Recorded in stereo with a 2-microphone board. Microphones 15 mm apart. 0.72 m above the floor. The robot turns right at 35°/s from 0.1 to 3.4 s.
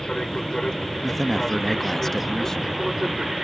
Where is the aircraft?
110° left; by 3.4 s 135° right.